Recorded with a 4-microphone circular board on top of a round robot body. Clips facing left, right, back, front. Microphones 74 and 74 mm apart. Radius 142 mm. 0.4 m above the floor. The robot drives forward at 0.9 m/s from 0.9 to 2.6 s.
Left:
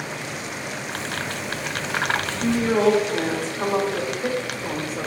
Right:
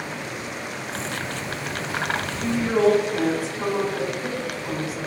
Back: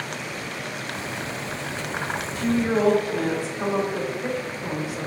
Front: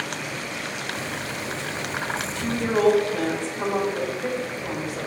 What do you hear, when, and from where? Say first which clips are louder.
2.4 s a woman speaking: left 1 dB, back 2 dB; 95° left, 2 m; by 5.1 s 105° left, 2 m